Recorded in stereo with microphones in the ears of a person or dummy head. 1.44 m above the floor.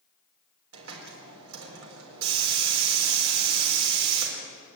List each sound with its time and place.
0.7 s a hiss: 85° right, 4 m